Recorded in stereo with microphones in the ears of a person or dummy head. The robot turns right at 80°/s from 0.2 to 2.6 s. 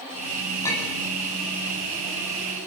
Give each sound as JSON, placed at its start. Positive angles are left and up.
{"t": 0.6, "sound": "a clink", "side_deg": 15, "distance_m": 9.5}